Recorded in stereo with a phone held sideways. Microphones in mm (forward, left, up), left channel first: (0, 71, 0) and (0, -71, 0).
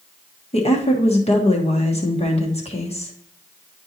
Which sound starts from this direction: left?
A woman speaking, at 0.5 s.